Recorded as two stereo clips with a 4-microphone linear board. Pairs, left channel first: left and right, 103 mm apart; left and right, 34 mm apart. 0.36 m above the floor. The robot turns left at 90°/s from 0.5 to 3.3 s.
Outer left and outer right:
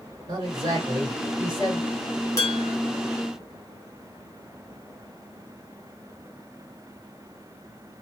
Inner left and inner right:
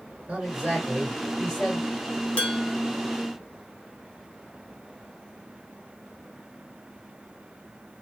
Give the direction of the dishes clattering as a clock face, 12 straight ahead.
11 o'clock.